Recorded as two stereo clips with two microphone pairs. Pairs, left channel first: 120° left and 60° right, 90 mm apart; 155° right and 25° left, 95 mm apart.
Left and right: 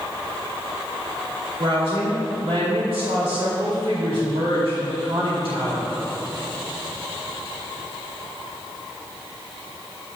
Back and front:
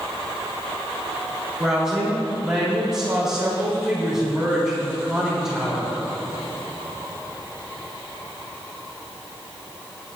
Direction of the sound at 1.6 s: 60° right.